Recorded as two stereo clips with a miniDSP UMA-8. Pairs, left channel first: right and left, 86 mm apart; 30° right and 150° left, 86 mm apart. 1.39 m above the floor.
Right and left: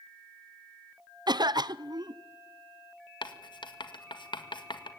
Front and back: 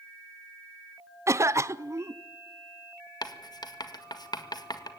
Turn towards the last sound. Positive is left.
turn(degrees=-65)